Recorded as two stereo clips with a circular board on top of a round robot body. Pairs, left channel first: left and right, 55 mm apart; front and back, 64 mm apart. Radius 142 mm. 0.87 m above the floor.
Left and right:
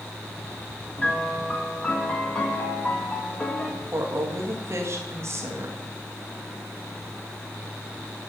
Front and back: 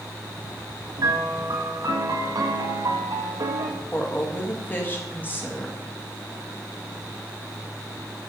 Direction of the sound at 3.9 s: 60° right.